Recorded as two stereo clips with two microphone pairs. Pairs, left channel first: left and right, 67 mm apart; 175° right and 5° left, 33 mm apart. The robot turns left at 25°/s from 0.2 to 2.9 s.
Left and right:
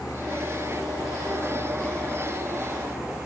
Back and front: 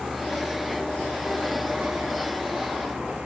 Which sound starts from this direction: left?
A vehicle, at 0.0 s.